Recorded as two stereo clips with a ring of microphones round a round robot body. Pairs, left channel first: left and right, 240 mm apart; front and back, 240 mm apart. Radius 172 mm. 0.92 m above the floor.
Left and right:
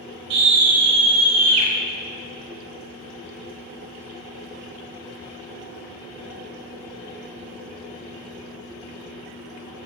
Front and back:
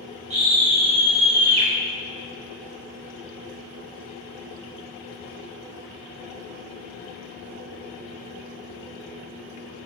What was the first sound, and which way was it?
A scream, 110° right.